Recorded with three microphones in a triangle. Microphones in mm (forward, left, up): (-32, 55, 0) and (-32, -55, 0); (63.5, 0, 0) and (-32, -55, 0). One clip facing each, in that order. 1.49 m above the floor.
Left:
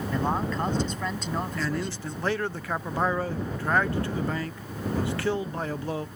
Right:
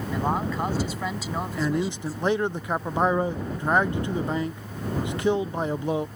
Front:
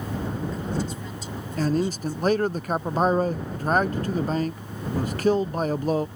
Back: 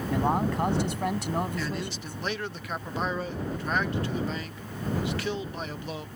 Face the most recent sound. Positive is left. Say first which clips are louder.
# right 4 dB, front 9 dB
turn(degrees=-20)